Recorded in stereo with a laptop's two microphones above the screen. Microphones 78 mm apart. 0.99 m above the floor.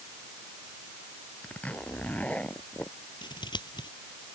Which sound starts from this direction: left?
Scissors, at 3.2 s.